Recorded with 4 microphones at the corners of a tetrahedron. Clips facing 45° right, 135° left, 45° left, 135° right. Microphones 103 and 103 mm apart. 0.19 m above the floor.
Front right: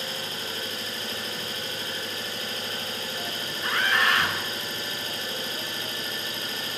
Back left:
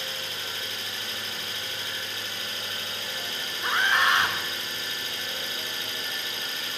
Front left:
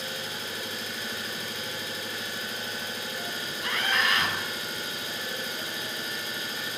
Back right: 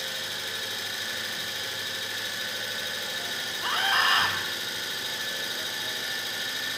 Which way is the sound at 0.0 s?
5° left.